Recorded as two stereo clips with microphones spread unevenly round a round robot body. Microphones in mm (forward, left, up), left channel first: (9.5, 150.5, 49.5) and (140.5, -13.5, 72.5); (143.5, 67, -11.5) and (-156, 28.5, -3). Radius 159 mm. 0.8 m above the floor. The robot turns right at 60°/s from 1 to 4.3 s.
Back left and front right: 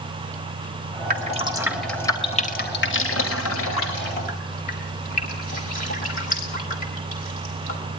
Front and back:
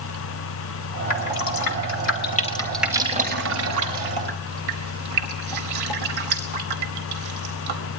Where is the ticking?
I don't hear ticking.